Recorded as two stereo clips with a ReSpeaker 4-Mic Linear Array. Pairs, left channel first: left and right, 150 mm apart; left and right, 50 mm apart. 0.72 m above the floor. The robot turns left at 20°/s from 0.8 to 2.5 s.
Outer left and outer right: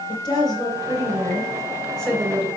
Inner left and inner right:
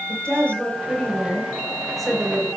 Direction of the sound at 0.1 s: 30° left.